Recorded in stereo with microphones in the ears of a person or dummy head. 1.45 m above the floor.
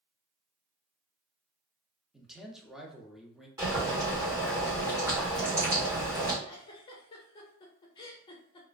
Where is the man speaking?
5° right (ahead or behind), 0.5 m.